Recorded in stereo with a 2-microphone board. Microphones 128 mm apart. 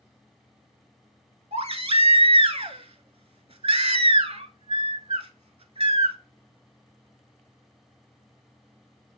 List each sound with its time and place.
1.5 s a baby crying: 50° right (ahead or behind), 0.6 m